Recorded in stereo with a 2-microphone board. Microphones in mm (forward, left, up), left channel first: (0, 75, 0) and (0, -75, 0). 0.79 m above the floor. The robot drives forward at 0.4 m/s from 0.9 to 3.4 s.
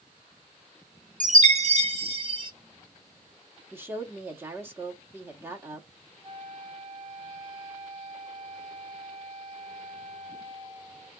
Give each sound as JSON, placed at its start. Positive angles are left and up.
{"t": 1.2, "sound": "a chime", "side_deg": -65, "distance_m": 0.6}
{"t": 3.7, "sound": "a woman speaking", "side_deg": -15, "distance_m": 1.0}
{"t": 6.2, "sound": "a flute", "side_deg": -40, "distance_m": 1.3}